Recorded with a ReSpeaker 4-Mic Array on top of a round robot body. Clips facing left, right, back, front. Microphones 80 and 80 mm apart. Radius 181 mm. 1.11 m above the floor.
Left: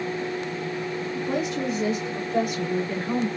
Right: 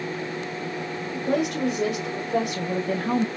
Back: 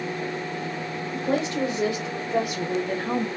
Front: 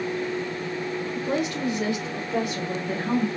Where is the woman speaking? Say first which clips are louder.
Right 4 dB, back 4 dB; 125° right, 2 m; by 3.3 s 90° right, 2 m.